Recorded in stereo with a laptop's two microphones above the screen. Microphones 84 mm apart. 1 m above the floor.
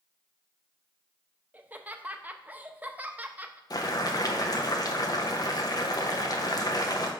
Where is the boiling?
50° left (ahead or behind), 0.7 m.